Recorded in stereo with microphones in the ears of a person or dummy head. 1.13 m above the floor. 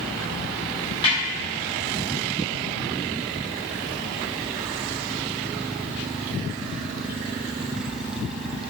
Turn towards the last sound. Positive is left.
turn(degrees=25)  # may be behind; listen again after turning